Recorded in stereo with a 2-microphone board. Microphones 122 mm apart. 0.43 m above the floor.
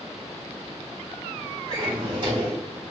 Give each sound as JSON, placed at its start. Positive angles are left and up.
{"t": 1.7, "sound": "a drawer", "side_deg": -40, "distance_m": 1.2}